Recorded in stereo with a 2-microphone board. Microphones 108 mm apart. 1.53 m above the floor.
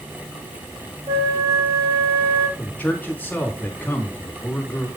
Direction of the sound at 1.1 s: 55° right (ahead or behind).